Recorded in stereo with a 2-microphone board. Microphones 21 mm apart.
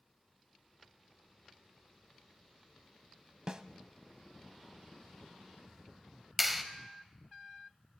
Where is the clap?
10° right (ahead or behind), 1.5 m.